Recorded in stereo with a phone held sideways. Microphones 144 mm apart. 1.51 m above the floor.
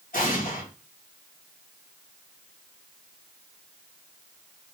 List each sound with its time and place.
0.1 s an explosion: 80° left, 2.0 m